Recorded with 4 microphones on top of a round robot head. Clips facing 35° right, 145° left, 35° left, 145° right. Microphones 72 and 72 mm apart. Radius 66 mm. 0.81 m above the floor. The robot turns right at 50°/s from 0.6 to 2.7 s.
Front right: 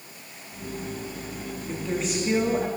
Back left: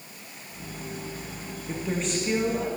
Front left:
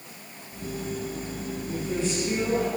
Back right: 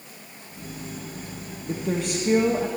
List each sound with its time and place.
1.7 s a woman speaking: 140° right, 1.7 m; by 2.7 s 90° right, 1.7 m